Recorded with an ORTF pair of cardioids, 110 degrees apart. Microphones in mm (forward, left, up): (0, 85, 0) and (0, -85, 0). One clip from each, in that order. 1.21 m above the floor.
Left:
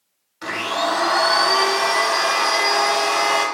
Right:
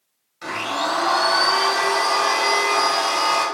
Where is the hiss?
I don't hear a hiss.